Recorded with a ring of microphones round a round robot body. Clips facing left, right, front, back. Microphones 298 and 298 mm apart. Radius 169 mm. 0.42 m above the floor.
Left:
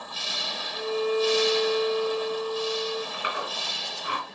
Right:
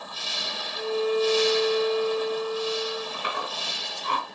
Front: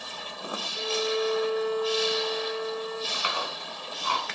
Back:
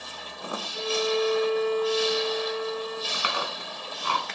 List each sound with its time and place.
0.7 s a violin: 135° left, 3 m
3.1 s chewing: 170° left, 3.5 m